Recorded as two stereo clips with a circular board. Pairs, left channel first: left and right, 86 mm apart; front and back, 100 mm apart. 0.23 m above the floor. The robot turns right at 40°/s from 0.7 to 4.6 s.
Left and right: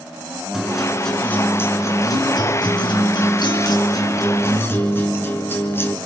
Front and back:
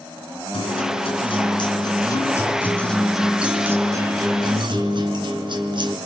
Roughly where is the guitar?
Ahead.